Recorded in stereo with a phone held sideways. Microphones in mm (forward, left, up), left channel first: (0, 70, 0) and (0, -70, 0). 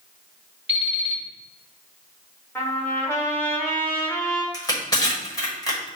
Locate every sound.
0.7 s an alarm clock: 45° left (ahead or behind), 2 m
2.5 s a trumpet: 15° left (ahead or behind), 0.9 m
4.5 s crushing: 25° left (ahead or behind), 1.3 m